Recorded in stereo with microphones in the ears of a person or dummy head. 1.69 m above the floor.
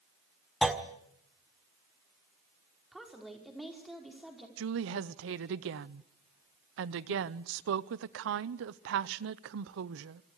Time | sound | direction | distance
0.6 | a clunk | 5° right (ahead or behind) | 1.5 m
2.9 | a woman speaking | 5° right (ahead or behind) | 5 m
4.6 | a woman speaking | 70° right (ahead or behind) | 0.8 m